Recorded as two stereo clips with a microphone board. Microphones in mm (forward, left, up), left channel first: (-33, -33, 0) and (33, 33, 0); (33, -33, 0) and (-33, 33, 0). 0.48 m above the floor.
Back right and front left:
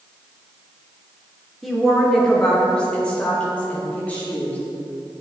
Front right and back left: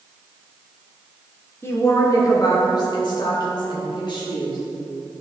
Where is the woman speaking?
40° right, 1.4 m; by 4.6 s 65° right, 3.5 m.